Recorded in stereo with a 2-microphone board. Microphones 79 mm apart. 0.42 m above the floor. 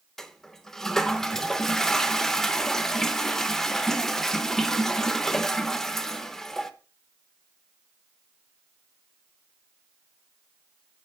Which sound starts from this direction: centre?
A toilet flushing, at 0.2 s.